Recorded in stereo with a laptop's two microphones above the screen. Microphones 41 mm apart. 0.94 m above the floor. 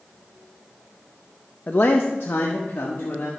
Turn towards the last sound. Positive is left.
turn(degrees=75)  # may be behind; listen again after turning